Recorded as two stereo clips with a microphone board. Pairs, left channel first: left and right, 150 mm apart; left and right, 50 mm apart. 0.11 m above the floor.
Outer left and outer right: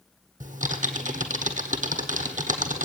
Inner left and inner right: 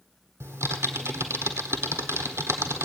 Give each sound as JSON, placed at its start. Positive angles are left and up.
{"t": 0.4, "sound": "typing on a keyboard", "side_deg": -60, "distance_m": 1.4}